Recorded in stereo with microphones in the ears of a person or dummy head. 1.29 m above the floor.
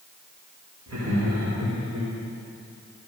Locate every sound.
0.9 s laughter: 80° right, 3 m